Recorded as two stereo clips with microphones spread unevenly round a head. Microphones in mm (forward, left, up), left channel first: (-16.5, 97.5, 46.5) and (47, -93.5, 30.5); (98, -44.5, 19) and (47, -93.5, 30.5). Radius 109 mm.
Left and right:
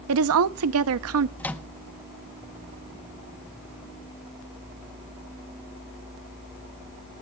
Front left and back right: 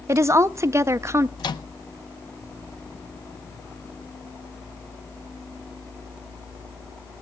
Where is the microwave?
25° left, 0.8 m.